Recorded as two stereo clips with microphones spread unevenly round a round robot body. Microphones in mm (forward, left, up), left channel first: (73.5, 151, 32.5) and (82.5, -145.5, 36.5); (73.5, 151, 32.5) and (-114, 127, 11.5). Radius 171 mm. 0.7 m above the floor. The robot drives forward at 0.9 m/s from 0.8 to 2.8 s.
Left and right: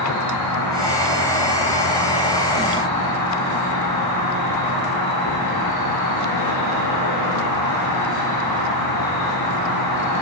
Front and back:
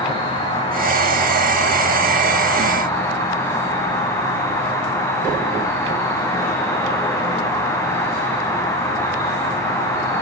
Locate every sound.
0.0 s an insect: 70° left, 8 m; by 10.2 s 80° left, 7.5 m